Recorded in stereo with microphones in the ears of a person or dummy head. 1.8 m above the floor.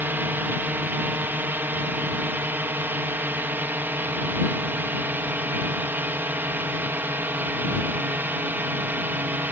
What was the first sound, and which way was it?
A drone, 15° right (ahead or behind).